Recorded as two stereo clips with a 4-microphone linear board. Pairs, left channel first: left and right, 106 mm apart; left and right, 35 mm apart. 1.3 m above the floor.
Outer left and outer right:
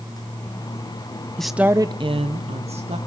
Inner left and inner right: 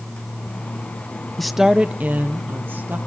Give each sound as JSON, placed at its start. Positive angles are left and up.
{"t": 1.4, "sound": "a woman speaking", "side_deg": 5, "distance_m": 0.8}